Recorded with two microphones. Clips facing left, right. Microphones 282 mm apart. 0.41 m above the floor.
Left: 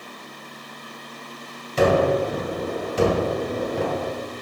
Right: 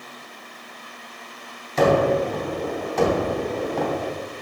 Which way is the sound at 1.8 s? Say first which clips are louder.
Even; 35° left (ahead or behind).